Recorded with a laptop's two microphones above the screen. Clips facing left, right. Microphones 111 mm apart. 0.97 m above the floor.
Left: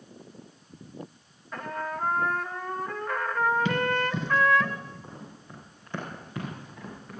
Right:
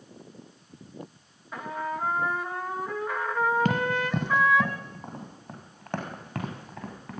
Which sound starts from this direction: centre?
A trumpet, at 1.5 s.